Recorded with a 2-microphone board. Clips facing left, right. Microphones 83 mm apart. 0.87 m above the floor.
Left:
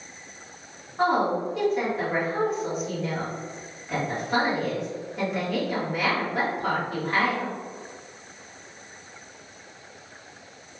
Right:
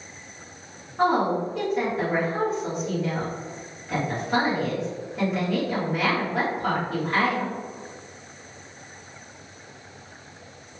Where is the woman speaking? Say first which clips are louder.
Right 1 dB; centre (ahead or behind), 1.2 m.